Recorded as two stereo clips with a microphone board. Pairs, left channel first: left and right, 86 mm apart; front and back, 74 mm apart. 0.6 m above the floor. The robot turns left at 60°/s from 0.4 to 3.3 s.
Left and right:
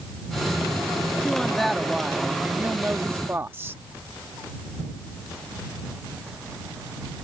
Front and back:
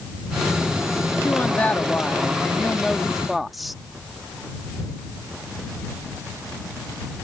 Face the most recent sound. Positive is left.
turn(degrees=-95)